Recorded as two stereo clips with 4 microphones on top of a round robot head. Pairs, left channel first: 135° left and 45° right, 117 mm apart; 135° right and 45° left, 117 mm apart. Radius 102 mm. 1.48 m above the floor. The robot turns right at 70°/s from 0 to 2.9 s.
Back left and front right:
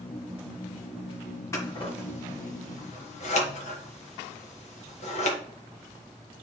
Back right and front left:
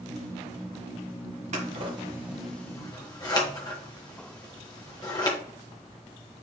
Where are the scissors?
70° left, 1.6 m; by 5.4 s 165° left, 1.6 m.